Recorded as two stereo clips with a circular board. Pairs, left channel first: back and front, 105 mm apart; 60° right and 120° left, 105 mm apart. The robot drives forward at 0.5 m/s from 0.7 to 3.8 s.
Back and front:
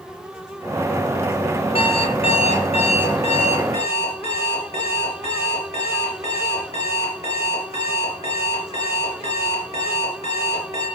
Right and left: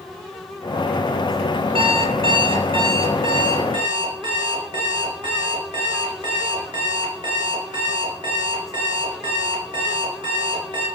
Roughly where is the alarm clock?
Behind left.